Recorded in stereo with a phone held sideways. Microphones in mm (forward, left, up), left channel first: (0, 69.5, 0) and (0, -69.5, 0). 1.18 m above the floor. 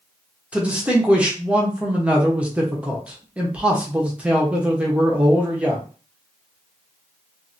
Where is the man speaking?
10° right (ahead or behind), 0.9 m.